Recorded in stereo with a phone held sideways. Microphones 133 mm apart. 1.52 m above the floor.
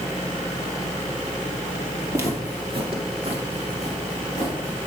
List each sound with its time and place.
2.1 s footsteps: 20° right (ahead or behind), 1.7 m; by 4.9 s 65° right (ahead or behind), 4 m